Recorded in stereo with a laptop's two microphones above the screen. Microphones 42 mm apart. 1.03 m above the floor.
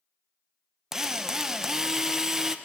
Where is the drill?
15° right (ahead or behind), 0.7 m.